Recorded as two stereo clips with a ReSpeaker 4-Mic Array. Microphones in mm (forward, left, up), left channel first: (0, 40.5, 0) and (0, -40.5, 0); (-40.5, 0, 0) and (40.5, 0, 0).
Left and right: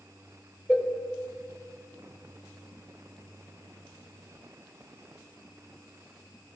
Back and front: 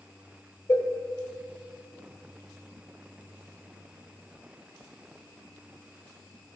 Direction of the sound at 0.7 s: 175° left.